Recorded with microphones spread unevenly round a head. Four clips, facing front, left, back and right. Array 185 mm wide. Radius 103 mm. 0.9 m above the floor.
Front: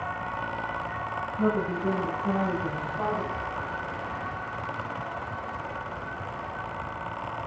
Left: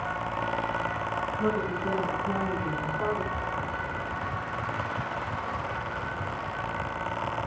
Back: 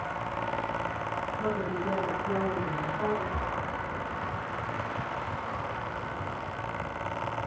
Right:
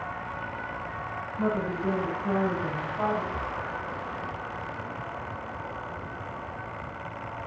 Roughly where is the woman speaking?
Ahead right.